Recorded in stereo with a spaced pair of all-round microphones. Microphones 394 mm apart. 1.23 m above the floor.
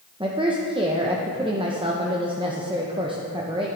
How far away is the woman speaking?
About 0.7 m.